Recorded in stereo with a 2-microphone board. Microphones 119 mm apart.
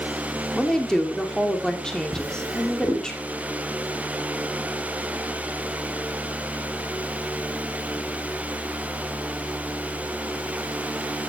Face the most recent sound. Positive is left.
turn(degrees=-10)  # may be behind; listen again after turning